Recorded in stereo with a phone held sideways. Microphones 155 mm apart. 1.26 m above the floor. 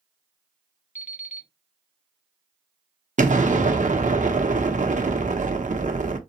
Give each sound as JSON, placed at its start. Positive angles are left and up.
{"t": 0.9, "sound": "an alarm clock", "side_deg": 55, "distance_m": 1.2}
{"t": 3.2, "sound": "an explosion", "side_deg": -55, "distance_m": 0.8}